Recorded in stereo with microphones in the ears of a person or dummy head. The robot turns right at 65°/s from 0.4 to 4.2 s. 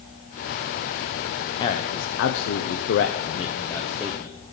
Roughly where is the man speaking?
Ahead left.